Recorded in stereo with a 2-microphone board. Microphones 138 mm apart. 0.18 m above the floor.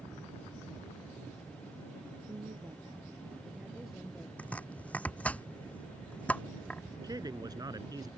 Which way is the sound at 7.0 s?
30° right (ahead or behind).